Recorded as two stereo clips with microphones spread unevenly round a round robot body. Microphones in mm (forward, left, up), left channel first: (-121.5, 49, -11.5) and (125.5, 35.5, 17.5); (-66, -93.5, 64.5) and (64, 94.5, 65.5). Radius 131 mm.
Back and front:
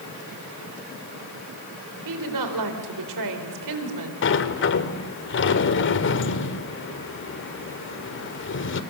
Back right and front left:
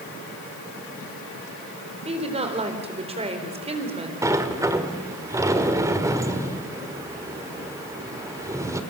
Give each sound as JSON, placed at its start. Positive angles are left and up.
{"t": 2.0, "sound": "a woman speaking", "azimuth_deg": -10, "distance_m": 4.0}
{"t": 4.2, "sound": "a sliding door", "azimuth_deg": 135, "distance_m": 1.5}